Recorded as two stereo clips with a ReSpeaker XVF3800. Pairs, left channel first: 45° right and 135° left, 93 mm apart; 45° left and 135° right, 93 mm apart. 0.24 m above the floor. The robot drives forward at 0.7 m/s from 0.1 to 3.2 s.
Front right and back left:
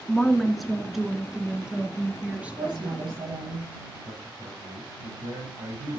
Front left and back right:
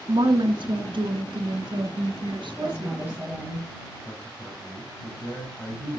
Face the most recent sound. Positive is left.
turn(degrees=120)